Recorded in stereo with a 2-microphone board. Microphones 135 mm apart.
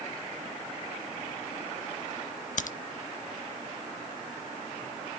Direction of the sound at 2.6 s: 70° left (ahead or behind).